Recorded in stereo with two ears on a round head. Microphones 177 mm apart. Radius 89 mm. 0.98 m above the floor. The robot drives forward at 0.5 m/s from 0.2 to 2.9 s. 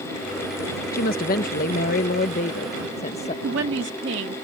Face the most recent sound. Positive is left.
turn(degrees=-60)  # may be behind; listen again after turning